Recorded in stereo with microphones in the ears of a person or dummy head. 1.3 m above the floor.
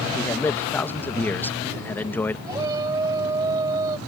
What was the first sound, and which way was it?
A man speaking, 10° left (ahead or behind).